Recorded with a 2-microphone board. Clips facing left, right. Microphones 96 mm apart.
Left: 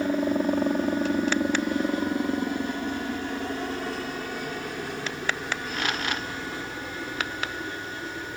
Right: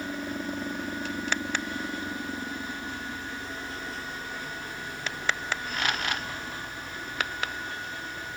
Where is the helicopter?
60° left (ahead or behind); by 8.4 s 80° left.